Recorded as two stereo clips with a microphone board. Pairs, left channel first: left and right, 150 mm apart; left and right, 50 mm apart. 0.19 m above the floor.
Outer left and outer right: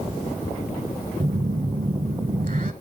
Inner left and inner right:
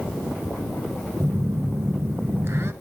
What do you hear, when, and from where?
1.2 s a phone buzzing: 65° right (ahead or behind), 0.7 m